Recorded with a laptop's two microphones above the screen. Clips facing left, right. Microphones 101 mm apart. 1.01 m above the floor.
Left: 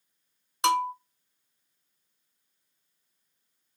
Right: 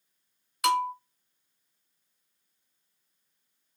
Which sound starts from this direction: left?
A bell, at 0.6 s.